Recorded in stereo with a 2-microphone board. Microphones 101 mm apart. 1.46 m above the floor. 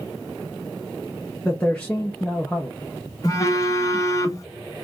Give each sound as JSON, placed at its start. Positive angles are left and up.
{"t": 1.4, "sound": "a man speaking", "side_deg": 15, "distance_m": 0.6}
{"t": 3.2, "sound": "a phone buzzing", "side_deg": 35, "distance_m": 0.7}